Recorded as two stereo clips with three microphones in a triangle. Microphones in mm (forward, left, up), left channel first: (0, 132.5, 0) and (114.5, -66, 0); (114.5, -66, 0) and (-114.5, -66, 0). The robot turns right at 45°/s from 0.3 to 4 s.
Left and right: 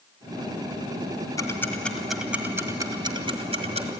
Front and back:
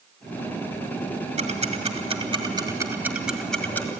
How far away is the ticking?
About 1.7 m.